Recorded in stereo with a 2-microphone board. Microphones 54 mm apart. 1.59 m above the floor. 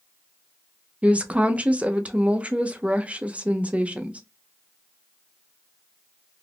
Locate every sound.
1.0 s a woman speaking: 25° right (ahead or behind), 0.5 m